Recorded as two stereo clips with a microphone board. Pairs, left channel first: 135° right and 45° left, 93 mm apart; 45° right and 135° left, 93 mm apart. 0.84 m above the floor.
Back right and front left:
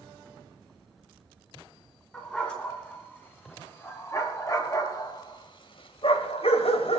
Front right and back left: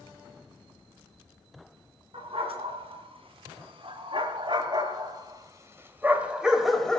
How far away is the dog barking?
About 3.5 m.